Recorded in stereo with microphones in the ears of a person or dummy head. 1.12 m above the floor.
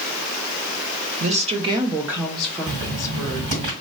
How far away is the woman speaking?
About 0.6 m.